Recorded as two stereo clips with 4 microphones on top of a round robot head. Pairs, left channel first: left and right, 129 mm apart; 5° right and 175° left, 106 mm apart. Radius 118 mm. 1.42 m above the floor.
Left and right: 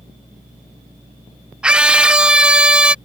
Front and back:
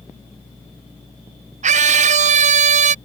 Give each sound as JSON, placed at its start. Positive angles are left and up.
{"t": 1.6, "sound": "a scream", "azimuth_deg": -175}